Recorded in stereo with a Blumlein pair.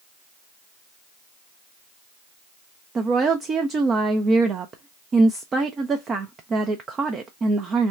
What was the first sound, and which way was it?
A woman speaking, 20° right.